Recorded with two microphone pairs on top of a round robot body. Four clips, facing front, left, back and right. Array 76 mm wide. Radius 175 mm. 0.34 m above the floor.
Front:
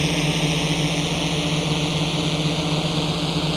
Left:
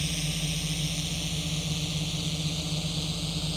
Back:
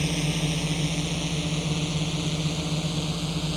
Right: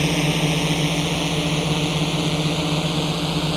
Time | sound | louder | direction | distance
0.0 | a drone | right 13 dB, front 6 dB | 55° right | ?